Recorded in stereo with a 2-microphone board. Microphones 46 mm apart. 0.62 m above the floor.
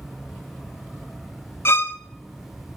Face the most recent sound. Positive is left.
turn(degrees=60)  # may be behind; listen again after turning